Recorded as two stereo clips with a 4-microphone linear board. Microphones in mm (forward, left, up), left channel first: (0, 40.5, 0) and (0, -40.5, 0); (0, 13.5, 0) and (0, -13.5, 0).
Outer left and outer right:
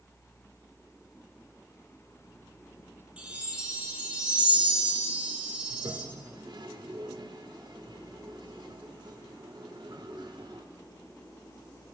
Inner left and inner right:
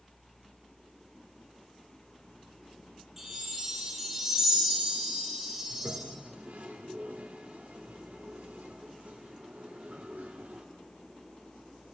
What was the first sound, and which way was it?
A chime, 15° right (ahead or behind).